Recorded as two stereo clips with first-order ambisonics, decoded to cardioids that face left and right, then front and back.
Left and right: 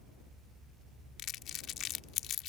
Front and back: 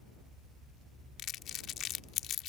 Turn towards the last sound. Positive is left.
turn(degrees=45)